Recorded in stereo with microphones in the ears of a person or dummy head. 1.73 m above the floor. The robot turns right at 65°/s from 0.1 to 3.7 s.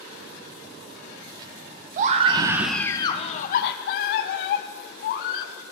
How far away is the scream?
About 0.5 m.